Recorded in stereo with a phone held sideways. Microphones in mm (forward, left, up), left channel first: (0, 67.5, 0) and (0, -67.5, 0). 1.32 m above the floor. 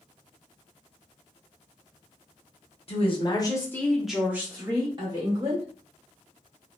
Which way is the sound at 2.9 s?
50° left (ahead or behind).